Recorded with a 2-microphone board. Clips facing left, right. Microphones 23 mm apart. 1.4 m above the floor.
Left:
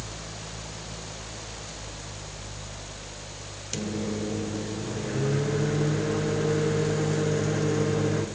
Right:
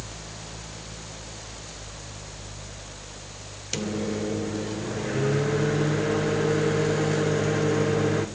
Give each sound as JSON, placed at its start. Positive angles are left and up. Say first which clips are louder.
{"t": 3.7, "sound": "a microwave", "louder": "right 2 dB", "side_deg": -25, "distance_m": 0.7}